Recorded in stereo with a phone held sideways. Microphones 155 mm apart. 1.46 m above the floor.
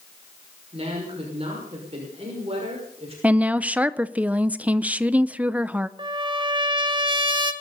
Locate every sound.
0.7 s a woman speaking: 40° right (ahead or behind), 5.5 m
3.2 s a woman speaking: 10° right (ahead or behind), 0.6 m
6.0 s a trumpet: 30° right (ahead or behind), 1.4 m